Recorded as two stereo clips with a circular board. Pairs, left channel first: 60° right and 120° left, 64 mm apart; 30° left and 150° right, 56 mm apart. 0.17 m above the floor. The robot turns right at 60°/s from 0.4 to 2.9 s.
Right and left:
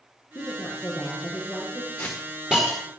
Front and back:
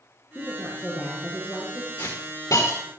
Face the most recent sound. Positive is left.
turn(degrees=60)